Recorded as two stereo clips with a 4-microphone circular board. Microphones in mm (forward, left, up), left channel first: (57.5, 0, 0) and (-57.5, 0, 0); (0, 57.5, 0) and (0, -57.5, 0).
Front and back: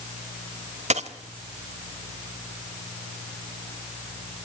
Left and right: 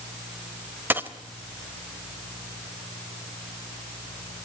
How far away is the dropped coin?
About 1.3 m.